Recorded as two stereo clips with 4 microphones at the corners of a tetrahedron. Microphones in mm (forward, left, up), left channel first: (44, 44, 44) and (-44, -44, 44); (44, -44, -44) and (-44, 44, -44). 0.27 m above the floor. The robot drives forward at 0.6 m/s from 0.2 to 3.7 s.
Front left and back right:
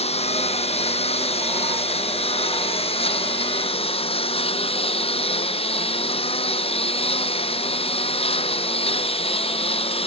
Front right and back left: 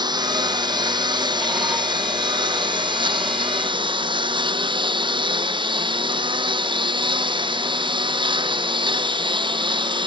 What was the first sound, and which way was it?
A lawn mower, 80° left.